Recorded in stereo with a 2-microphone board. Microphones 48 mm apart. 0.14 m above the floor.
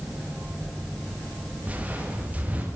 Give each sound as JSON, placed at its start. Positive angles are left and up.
{"t": 1.6, "sound": "footsteps", "side_deg": -30, "distance_m": 10.0}